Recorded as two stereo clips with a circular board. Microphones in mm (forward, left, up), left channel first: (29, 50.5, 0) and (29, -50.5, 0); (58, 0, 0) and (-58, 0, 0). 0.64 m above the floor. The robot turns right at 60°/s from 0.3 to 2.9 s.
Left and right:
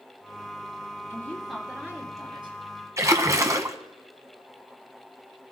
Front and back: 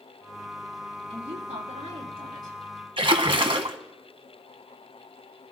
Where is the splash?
145° right, 1.1 m.